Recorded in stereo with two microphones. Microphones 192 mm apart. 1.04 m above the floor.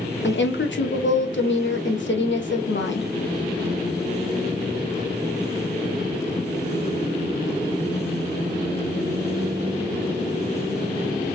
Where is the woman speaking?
75° left (ahead or behind), 0.9 m.